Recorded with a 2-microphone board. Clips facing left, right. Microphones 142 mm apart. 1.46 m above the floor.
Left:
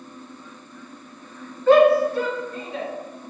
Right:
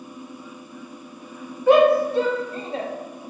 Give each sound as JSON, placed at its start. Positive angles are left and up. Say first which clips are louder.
{"t": 1.7, "sound": "a shout", "louder": "left 1 dB", "side_deg": -15, "distance_m": 1.1}